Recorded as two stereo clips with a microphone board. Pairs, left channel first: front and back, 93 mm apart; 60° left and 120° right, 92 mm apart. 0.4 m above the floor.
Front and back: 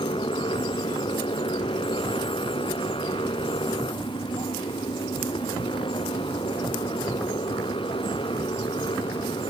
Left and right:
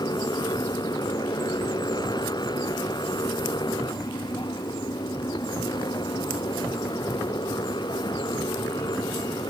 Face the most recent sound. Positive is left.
turn(degrees=20)